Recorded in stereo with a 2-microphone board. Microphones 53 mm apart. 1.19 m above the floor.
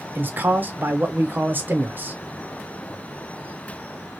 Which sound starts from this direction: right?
A man speaking, at 0.1 s.